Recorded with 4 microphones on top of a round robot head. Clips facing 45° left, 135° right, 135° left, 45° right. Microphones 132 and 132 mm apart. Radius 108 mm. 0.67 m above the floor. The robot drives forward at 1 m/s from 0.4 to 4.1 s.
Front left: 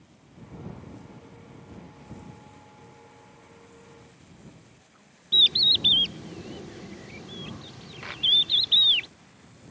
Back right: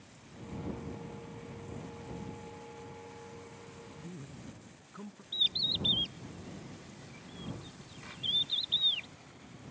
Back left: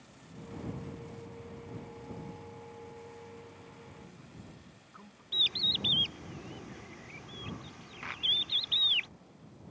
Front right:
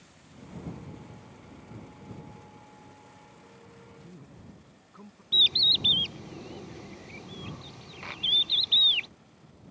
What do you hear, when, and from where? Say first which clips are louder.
4.0 s a man speaking: back right 4 dB, front right 2 dB; 105° right
5.3 s a bird: front left 10 dB, front right 3 dB; 20° left